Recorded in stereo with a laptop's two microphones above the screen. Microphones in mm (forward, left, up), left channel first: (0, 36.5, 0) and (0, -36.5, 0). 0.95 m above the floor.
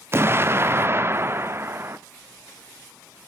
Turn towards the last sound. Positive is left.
turn(degrees=-35)  # may be behind; listen again after turning